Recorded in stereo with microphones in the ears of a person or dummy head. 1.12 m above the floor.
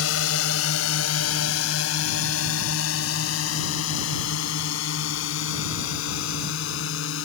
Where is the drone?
80° left; by 7.3 s 75° left (ahead or behind).